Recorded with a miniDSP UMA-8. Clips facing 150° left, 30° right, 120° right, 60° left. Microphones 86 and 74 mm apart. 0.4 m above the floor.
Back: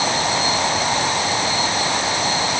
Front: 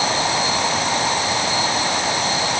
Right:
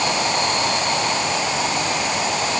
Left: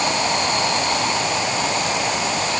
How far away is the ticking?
No ticking in this recording.